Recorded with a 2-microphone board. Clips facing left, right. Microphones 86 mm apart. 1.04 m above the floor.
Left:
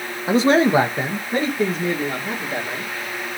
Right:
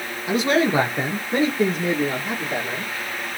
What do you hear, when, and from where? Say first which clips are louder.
0.3 s a man speaking: left 4 dB; 35° left (ahead or behind), 0.9 m; by 2.9 s 20° right (ahead or behind), 3 m